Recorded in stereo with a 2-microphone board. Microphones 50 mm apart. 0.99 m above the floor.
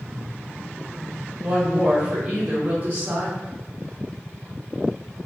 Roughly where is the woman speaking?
Centre.